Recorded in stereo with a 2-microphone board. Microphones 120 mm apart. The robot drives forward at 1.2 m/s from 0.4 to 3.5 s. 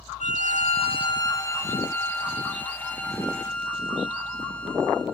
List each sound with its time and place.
0.2 s a violin: 85° left, 0.6 m; by 5.0 s 10° left (ahead or behind), 3.5 m